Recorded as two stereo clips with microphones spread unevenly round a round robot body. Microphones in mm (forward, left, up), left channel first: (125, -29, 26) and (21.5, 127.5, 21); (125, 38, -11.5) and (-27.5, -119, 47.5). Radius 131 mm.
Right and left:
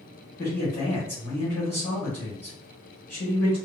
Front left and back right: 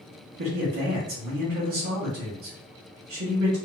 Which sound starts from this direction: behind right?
A man speaking, at 0.4 s.